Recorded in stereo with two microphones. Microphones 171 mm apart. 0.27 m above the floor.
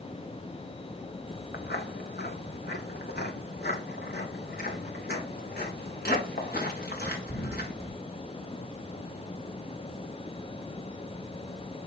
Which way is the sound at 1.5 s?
70° left (ahead or behind).